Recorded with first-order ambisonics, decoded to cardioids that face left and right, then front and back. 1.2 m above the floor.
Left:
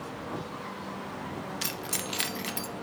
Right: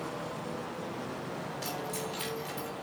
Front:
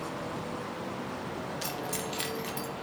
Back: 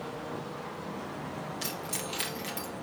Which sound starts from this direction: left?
Keys jangling, at 1.6 s.